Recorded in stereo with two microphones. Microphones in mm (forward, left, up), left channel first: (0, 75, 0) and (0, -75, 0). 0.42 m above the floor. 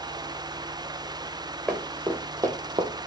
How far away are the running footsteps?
About 0.9 m.